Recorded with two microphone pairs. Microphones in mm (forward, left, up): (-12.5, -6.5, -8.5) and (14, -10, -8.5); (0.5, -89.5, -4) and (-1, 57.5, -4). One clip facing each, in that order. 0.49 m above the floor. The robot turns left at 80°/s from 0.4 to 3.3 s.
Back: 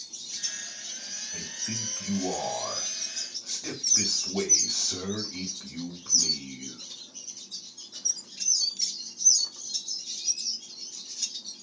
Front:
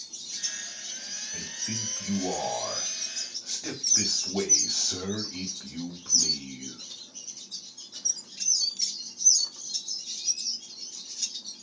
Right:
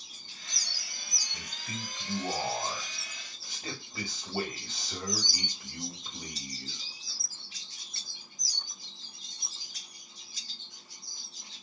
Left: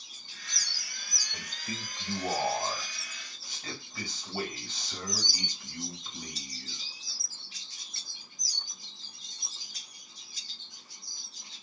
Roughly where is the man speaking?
Left.